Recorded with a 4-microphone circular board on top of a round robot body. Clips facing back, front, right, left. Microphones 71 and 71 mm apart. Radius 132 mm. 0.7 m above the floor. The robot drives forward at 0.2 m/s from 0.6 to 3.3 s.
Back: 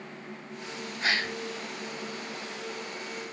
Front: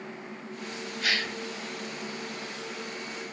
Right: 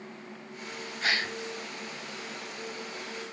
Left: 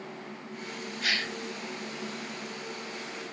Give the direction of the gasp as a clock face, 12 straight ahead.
4 o'clock.